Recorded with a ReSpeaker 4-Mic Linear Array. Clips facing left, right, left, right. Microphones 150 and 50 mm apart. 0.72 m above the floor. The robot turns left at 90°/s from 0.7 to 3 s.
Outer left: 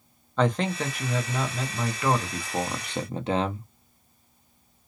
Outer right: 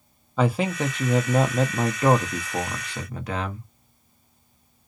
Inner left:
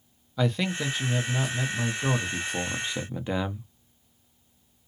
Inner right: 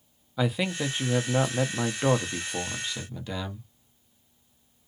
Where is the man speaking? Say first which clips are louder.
Outer right 2 dB, even; 10° right, 0.6 m; by 3.7 s 140° left, 0.6 m.